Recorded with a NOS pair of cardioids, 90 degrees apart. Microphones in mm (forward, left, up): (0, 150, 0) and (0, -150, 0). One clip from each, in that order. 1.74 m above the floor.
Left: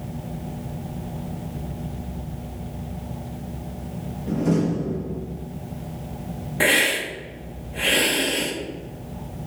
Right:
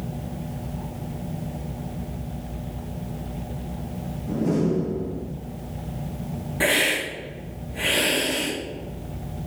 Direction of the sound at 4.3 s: 55° left.